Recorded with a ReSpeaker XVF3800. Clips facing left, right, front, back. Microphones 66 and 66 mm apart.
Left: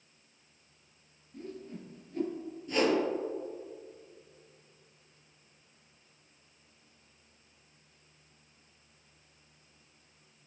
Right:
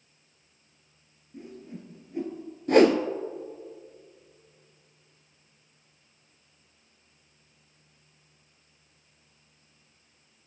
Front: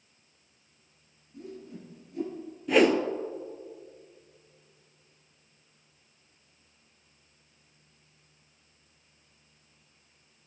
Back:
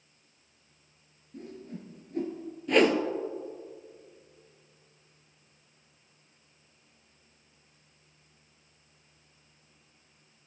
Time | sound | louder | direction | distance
1.3 | a whoosh | right 1 dB, back 1 dB | 155° right | 1.5 m
2.7 | a whoosh | right 9 dB, front 1 dB | 85° right | 0.5 m